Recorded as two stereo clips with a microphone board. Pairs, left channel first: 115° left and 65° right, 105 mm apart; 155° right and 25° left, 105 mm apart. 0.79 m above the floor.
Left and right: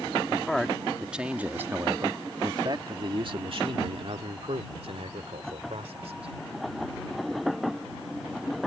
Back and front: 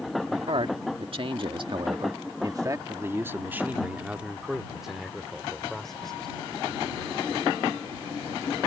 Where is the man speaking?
30° left; by 6.3 s 75° right.